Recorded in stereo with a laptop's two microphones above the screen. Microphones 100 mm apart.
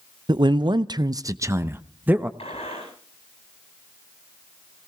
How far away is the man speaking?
About 0.6 m.